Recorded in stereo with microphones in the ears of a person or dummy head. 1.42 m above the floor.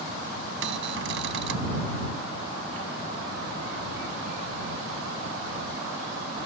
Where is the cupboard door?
75° right (ahead or behind).